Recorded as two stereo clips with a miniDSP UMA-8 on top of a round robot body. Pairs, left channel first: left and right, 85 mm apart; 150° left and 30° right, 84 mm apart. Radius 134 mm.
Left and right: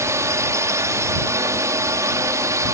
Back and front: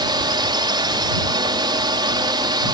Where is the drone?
40° right; by 2.8 s 45° right.